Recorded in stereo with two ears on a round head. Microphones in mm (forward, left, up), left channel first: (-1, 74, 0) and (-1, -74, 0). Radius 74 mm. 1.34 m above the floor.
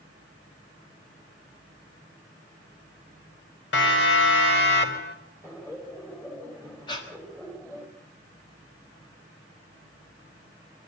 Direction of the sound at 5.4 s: 15° left (ahead or behind).